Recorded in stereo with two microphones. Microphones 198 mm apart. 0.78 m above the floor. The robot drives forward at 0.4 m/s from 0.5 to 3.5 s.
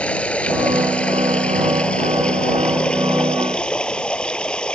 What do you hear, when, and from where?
0.0 s running water: 5° left (ahead or behind)